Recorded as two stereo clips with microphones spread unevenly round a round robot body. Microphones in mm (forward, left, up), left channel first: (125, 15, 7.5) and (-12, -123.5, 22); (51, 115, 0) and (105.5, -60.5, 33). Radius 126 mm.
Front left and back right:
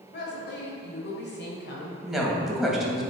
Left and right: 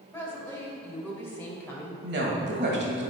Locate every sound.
0.1 s a woman speaking: 35° left, 2.5 m
2.0 s a woman speaking: 45° right, 2.5 m